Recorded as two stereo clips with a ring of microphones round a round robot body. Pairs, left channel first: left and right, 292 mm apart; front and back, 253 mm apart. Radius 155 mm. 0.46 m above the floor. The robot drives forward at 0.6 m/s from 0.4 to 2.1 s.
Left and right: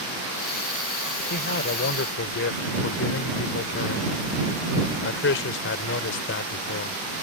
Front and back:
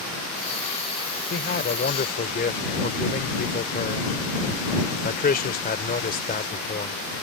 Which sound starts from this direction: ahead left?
A man speaking, at 1.3 s.